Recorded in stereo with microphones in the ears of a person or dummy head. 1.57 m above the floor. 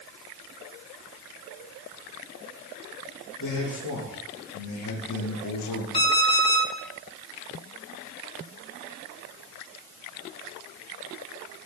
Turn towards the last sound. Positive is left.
turn(degrees=20)  # may be behind; listen again after turning